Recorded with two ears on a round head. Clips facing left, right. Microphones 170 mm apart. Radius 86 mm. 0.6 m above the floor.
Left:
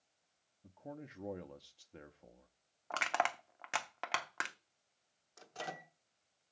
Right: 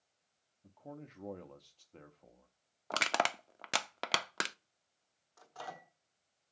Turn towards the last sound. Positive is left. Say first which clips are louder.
# left 1 dB
turn(degrees=25)  # may be behind; listen again after turning